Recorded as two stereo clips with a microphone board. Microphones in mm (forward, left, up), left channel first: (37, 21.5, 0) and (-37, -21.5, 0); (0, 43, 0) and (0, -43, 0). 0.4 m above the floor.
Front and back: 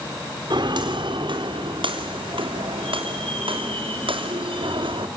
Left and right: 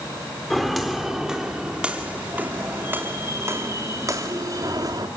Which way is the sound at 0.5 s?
175° left.